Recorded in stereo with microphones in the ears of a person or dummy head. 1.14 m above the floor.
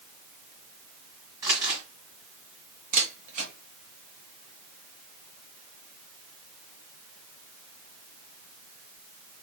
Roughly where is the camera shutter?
Right.